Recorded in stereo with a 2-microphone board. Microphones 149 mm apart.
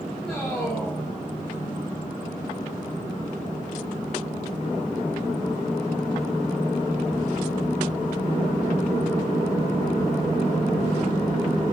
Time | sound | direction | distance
0.2 | a man speaking | 5° left (ahead or behind) | 5.5 m